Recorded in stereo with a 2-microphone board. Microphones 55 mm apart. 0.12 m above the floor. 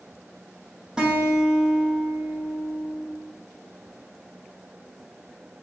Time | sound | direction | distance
1.0 | a guitar | 15° right (ahead or behind) | 3 m